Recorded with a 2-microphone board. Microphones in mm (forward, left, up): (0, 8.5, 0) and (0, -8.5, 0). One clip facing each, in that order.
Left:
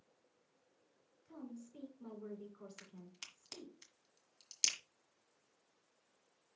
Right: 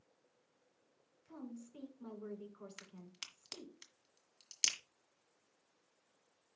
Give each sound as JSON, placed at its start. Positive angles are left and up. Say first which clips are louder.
{"t": 1.2, "sound": "a woman speaking", "louder": "right 1 dB", "side_deg": -35, "distance_m": 3.0}
{"t": 2.8, "sound": "a crack", "louder": "right 2 dB", "side_deg": -25, "distance_m": 1.8}